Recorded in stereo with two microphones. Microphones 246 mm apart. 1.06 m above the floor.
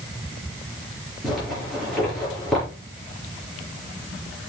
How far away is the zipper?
About 5.5 m.